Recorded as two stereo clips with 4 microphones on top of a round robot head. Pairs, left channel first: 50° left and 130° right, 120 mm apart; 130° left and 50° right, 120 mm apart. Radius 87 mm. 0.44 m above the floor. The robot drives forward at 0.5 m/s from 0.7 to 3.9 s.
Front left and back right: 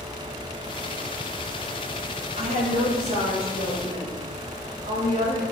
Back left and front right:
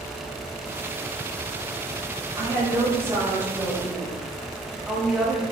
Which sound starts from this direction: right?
A woman speaking, at 2.4 s.